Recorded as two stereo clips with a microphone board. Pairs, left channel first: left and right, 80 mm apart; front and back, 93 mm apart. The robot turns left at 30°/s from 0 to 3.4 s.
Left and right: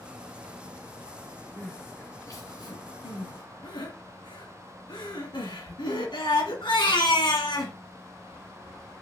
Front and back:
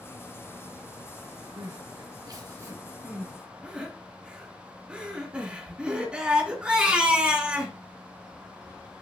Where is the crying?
160° left, 2.5 m; by 7.8 s 100° left, 2.5 m.